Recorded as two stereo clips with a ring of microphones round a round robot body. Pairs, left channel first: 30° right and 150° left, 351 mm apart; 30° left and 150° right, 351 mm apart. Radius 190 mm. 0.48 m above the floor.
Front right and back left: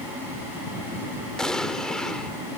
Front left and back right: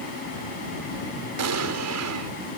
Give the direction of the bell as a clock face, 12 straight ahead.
No bell in this recording.